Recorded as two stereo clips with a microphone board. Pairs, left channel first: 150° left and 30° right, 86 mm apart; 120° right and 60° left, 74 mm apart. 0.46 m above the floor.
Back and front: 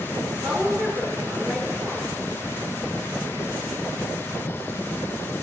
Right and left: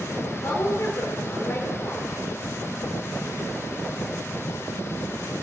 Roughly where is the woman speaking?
Right.